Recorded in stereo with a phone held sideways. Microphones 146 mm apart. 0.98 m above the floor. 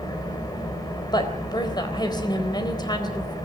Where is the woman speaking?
30° left (ahead or behind), 4 m.